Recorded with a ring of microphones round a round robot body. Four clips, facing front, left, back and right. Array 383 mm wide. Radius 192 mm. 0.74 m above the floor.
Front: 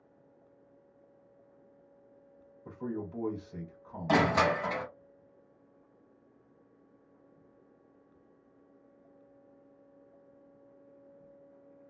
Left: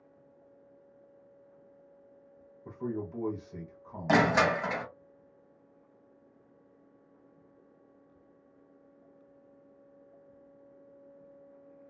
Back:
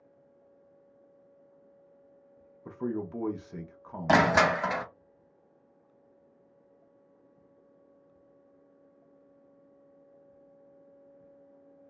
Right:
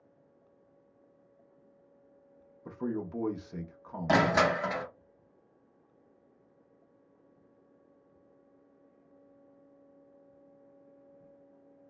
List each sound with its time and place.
2.6 s a man speaking: 145° right, 0.5 m
4.1 s crushing: 175° left, 0.6 m